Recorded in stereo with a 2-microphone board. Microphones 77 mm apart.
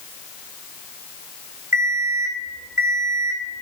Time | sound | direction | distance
1.7 | an alarm clock | 40° right (ahead or behind) | 3 m